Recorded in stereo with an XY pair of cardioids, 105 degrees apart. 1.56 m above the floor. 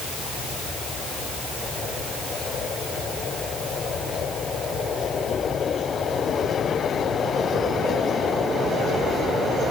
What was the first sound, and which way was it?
Only background noise.